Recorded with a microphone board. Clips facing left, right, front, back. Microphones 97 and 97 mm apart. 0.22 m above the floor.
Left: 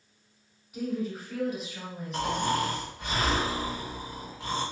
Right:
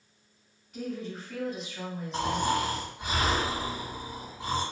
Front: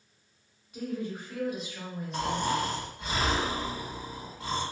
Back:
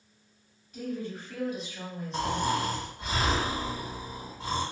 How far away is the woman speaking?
About 1.0 m.